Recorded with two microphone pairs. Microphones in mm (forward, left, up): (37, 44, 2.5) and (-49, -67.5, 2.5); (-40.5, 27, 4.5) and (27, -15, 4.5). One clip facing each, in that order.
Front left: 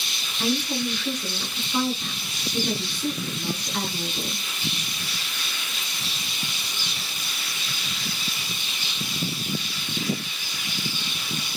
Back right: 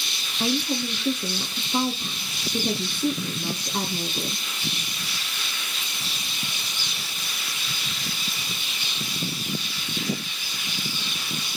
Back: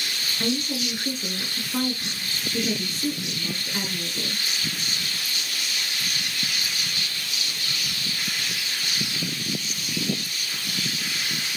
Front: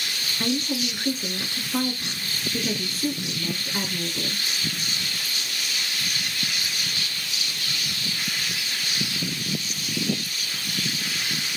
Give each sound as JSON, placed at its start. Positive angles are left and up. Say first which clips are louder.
{"t": 0.4, "sound": "a woman speaking", "louder": "even, front 1 dB", "azimuth_deg": -115, "distance_m": 1.2}